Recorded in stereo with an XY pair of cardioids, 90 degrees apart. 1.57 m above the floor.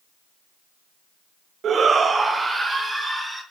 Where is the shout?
65° right, 0.9 m; by 3.4 s 25° right, 3.5 m.